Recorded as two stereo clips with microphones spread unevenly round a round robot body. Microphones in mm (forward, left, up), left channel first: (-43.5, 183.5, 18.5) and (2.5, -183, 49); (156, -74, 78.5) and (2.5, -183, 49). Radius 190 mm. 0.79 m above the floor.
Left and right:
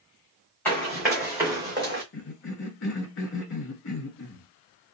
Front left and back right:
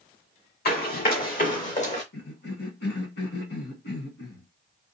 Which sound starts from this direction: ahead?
Running footsteps, at 0.7 s.